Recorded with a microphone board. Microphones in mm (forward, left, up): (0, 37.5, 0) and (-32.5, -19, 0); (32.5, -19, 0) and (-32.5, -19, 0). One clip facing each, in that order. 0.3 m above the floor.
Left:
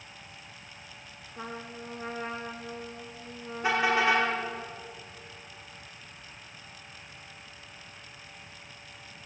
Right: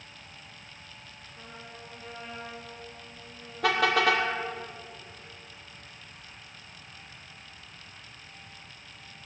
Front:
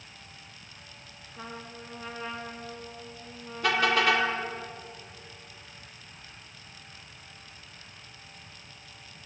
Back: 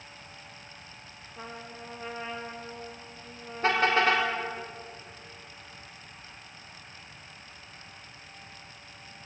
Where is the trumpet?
110° left, 3.5 m.